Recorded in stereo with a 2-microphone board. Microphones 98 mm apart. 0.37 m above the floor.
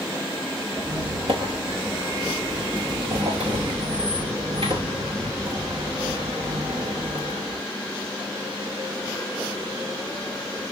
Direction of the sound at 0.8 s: 65° right (ahead or behind).